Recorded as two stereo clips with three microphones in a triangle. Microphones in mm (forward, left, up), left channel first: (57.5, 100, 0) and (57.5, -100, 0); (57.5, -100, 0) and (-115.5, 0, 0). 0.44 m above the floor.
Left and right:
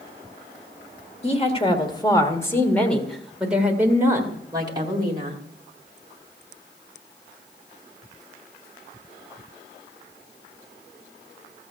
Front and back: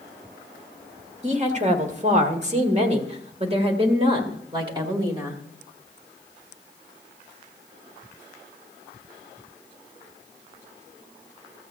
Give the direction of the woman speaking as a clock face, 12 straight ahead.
8 o'clock.